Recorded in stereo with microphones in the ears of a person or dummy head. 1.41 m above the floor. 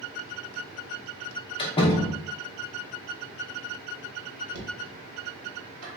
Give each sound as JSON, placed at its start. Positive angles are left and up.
{"t": 1.6, "sound": "a door slam", "side_deg": 25, "distance_m": 0.7}
{"t": 4.5, "sound": "knocking", "side_deg": -75, "distance_m": 1.1}